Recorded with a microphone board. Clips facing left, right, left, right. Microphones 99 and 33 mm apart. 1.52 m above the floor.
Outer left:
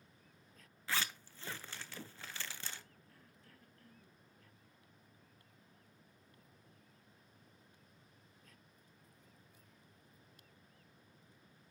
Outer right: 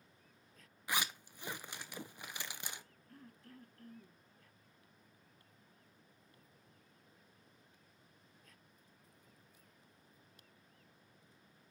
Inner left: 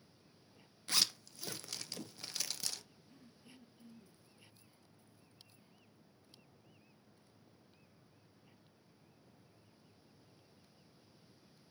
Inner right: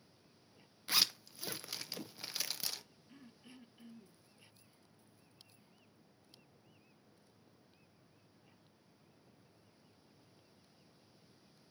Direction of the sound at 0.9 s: 15° right (ahead or behind).